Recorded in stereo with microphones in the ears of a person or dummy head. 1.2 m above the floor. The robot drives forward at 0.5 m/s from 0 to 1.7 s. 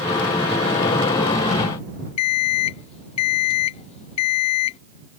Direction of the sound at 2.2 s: 35° left (ahead or behind).